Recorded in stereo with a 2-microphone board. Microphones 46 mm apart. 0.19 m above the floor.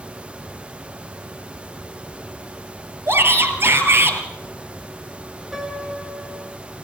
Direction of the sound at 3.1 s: 55° right (ahead or behind).